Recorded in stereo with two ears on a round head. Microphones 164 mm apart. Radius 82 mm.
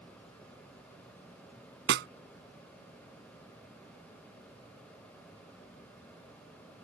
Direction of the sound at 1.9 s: 70° right (ahead or behind).